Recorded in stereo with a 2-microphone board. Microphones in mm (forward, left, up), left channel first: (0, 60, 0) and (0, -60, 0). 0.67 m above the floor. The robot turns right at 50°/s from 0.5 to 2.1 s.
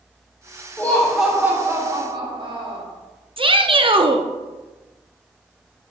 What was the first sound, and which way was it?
Laughter, 160° left.